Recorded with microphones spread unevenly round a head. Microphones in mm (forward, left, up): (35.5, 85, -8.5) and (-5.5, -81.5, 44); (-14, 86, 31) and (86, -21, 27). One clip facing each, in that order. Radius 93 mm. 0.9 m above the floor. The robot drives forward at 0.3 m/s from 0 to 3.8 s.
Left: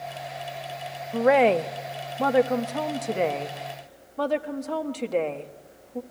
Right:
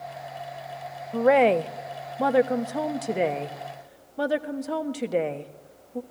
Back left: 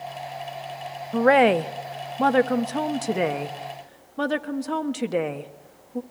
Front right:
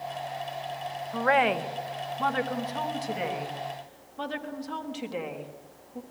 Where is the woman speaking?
145° left, 0.6 m; by 6.0 s 170° left, 1.2 m.